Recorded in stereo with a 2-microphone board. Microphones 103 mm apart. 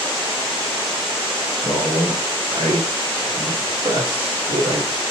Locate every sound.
1.6 s a man speaking: 40° right (ahead or behind), 1.0 m; by 5.0 s 55° right (ahead or behind), 1.5 m